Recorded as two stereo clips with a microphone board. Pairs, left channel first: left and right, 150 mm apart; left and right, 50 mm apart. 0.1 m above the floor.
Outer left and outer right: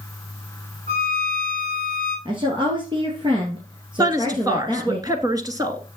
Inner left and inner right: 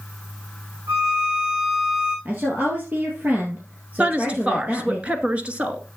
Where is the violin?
75° right (ahead or behind), 8 m.